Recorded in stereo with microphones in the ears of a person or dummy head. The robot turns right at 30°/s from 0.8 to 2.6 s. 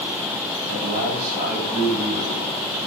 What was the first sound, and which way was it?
A man speaking, 60° right.